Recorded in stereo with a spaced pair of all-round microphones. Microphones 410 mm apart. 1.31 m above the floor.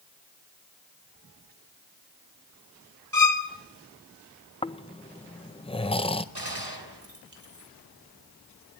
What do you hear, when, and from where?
3.1 s a violin: 35° right (ahead or behind), 1.8 m
4.6 s snoring: 15° left (ahead or behind), 0.6 m
6.3 s a gunshot: 70° right (ahead or behind), 3 m